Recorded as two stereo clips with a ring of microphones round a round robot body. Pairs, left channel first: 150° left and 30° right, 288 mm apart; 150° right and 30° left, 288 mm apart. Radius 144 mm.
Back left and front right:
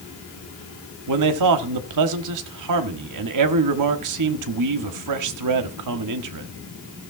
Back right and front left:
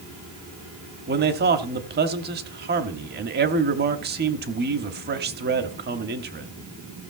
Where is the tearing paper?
I don't hear tearing paper.